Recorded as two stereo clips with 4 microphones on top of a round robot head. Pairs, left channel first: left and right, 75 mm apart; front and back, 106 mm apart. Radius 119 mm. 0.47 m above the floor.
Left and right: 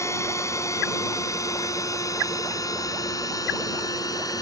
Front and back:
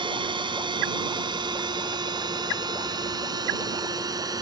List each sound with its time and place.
0.0 s a drone: 140° left; by 4.4 s 125° left